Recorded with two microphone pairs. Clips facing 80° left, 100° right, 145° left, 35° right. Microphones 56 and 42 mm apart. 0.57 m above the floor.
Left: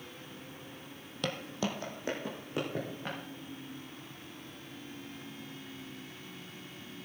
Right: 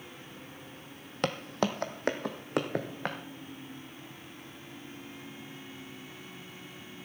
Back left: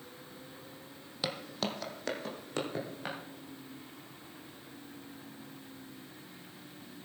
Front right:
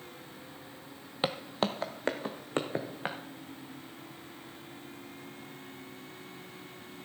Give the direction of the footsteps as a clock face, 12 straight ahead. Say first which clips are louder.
Right 5 dB, front right 5 dB; 3 o'clock.